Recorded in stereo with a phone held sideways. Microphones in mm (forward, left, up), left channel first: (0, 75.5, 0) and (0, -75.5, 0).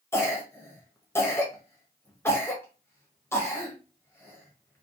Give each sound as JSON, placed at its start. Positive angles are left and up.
{"t": 0.1, "sound": "a cough", "side_deg": 15, "distance_m": 0.7}